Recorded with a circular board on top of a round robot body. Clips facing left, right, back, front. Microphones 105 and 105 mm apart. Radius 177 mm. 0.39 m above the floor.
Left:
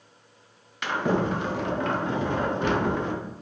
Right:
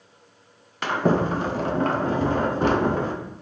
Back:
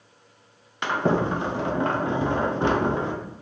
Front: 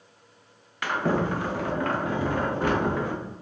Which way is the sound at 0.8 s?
120° right.